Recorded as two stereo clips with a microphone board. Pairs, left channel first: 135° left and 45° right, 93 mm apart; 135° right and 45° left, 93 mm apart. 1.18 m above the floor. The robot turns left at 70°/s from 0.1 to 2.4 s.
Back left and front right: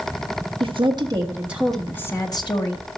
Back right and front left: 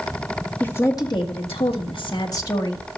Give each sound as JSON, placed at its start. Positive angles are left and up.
{"t": 0.6, "sound": "a woman speaking", "azimuth_deg": -60, "distance_m": 1.5}